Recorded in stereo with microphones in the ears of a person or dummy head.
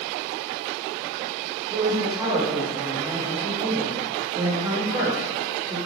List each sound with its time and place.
1.7 s a man speaking: 5° right (ahead or behind), 1.5 m